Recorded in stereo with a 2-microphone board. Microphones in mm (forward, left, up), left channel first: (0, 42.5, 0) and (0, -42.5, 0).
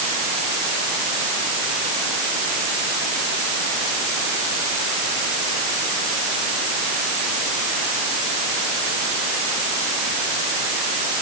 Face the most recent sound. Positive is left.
No sound to turn to.